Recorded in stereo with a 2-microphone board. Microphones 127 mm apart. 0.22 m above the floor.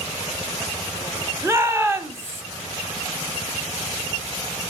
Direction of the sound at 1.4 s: 20° right (ahead or behind).